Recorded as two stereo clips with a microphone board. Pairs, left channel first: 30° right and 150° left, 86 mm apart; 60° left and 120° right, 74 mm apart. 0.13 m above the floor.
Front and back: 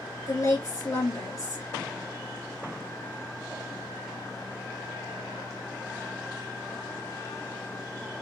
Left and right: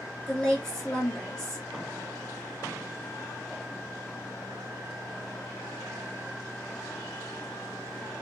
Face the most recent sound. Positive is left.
turn(degrees=-15)